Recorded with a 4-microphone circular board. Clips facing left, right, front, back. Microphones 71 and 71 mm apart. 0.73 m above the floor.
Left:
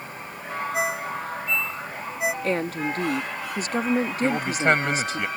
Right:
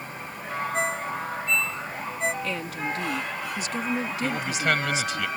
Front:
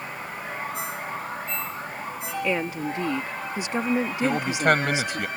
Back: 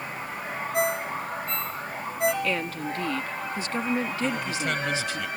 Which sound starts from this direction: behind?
A ringtone, at 0.7 s.